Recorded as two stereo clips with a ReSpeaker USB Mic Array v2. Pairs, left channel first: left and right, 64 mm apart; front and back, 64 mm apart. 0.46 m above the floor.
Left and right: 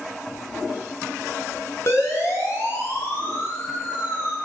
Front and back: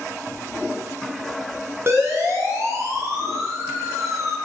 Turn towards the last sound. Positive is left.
turn(degrees=145)